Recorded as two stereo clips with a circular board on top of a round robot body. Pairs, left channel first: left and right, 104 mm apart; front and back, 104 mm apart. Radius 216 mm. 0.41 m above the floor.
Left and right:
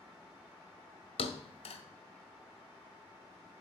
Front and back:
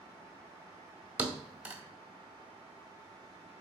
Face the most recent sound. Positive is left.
turn(degrees=105)